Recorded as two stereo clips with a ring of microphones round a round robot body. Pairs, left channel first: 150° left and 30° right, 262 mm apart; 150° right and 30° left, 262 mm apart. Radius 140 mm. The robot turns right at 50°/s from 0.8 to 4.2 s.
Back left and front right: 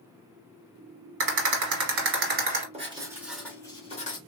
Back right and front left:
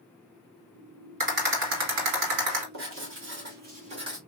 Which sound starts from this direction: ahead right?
A rattle, at 1.2 s.